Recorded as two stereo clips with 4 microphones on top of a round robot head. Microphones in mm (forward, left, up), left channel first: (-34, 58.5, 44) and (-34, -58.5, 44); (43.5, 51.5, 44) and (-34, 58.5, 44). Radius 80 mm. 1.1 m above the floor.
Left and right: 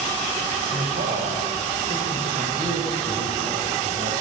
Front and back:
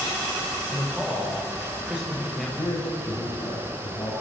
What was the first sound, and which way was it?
A man speaking, 105° right.